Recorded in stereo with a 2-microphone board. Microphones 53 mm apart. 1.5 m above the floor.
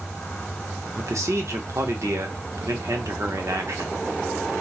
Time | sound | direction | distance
1.0 | a man speaking | 65° right (ahead or behind) | 0.7 m